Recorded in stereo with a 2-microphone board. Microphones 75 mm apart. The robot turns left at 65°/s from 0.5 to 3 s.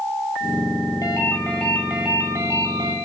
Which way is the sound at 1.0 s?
50° left.